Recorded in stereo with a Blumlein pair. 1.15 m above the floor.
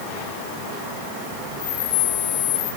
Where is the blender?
No blender in this recording.